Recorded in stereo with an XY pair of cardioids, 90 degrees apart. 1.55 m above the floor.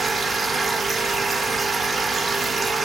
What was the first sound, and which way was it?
A machine running, 30° right.